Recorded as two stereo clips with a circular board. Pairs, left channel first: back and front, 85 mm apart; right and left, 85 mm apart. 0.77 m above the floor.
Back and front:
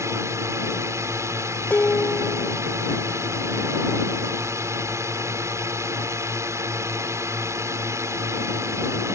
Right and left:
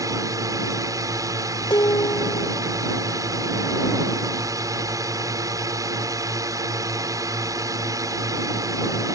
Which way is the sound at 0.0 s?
50° left.